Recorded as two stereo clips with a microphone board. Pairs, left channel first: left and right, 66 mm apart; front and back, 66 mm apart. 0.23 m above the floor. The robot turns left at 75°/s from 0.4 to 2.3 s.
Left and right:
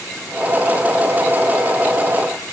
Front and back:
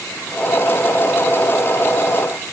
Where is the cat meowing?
No cat meowing in this recording.